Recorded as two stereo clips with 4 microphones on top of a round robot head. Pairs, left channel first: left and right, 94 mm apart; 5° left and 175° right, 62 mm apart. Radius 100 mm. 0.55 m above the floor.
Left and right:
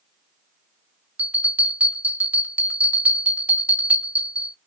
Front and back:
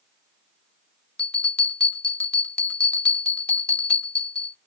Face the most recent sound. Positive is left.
turn(degrees=-40)